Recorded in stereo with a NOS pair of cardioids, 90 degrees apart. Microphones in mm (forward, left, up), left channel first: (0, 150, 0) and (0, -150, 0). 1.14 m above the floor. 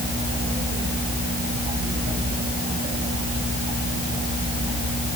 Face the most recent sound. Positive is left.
No sound to turn to.